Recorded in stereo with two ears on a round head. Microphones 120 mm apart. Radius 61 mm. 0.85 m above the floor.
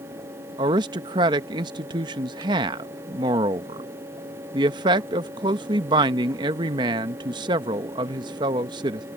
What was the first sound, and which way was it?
A man speaking, 35° right (ahead or behind).